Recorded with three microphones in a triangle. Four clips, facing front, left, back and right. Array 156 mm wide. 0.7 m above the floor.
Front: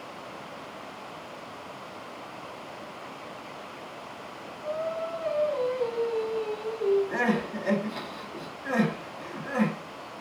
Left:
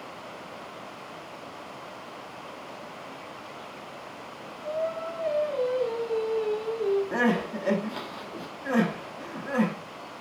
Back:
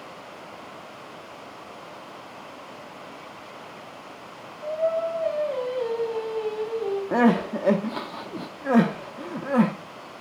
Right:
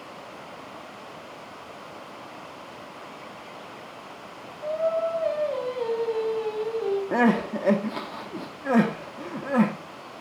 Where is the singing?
125° right, 4.5 m.